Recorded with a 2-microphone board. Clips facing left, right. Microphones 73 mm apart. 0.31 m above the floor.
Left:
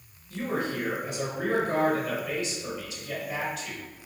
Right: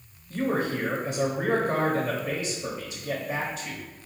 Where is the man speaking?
30° right (ahead or behind), 1.0 m.